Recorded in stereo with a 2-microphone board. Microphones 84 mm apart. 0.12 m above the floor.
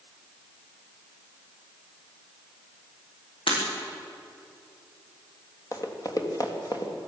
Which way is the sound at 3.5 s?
80° left.